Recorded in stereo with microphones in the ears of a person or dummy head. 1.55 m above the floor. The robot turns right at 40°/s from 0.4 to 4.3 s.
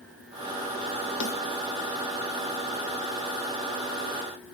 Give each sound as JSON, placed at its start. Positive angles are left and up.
{"t": 1.2, "sound": "a snare drum", "side_deg": 70, "distance_m": 1.2}